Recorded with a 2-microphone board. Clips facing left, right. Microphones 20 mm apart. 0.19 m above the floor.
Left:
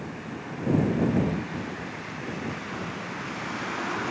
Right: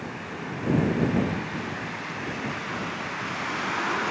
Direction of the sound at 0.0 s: 15° right (ahead or behind).